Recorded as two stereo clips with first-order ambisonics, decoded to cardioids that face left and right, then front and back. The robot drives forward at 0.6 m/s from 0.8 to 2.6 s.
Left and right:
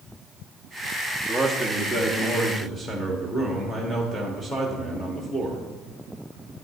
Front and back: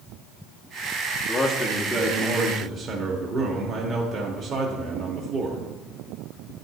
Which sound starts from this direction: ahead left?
A man speaking, at 1.3 s.